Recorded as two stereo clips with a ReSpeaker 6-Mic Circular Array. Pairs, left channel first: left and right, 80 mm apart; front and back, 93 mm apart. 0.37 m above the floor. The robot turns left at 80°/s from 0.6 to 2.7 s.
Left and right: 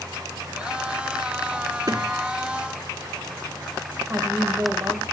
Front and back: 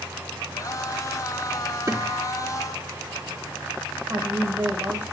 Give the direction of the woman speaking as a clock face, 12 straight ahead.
4 o'clock.